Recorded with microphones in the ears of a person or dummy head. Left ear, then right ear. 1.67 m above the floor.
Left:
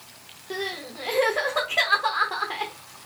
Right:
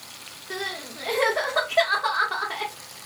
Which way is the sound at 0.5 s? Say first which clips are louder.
Even; 5° left (ahead or behind).